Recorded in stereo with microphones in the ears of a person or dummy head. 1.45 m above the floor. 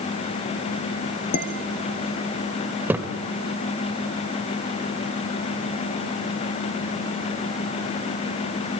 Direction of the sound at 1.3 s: 45° left (ahead or behind).